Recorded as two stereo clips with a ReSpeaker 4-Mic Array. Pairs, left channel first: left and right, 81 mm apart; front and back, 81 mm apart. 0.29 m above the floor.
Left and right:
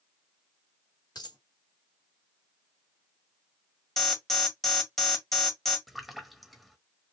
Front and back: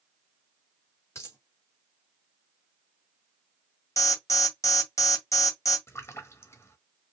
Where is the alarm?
10° left, 1.9 m.